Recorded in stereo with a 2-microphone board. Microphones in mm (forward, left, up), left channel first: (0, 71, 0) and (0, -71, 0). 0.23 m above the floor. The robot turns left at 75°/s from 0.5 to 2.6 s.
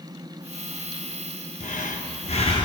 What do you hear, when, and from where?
1.6 s breathing: 115° left, 1.9 m; by 2.7 s 40° left, 1.9 m